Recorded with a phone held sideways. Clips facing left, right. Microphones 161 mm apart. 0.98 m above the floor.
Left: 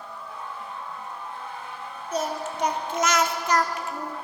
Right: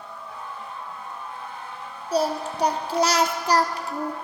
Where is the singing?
35° right (ahead or behind), 0.7 m.